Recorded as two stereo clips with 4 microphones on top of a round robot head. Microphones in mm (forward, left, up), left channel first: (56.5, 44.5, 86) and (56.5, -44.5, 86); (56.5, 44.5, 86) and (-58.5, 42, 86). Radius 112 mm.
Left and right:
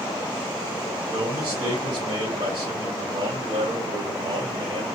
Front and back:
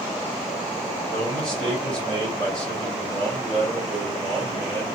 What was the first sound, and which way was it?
A man speaking, 85° right.